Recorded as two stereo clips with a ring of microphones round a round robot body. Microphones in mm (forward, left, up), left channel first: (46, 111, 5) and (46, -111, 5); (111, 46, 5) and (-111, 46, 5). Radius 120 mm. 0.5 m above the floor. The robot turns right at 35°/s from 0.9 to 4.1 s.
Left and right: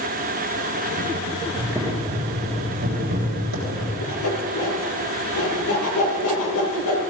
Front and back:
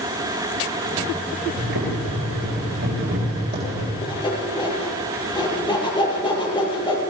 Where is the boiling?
175° left, 7.5 m; by 3.9 s 100° right, 7.5 m.